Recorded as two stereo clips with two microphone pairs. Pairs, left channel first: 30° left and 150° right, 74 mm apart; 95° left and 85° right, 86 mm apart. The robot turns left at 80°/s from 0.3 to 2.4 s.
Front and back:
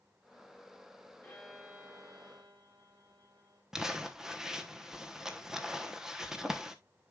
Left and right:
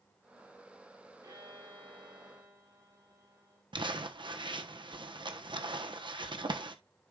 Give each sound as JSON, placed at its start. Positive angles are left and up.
{"t": 1.2, "sound": "a violin", "azimuth_deg": -35, "distance_m": 3.5}
{"t": 3.7, "sound": "crumpling", "azimuth_deg": -65, "distance_m": 1.0}